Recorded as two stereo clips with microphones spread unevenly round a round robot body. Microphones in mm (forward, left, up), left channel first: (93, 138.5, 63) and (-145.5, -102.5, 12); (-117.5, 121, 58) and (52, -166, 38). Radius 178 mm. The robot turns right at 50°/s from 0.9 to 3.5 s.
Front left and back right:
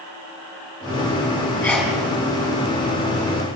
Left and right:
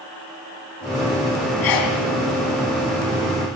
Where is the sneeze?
130° left, 4 m; by 2.0 s 145° left, 4 m.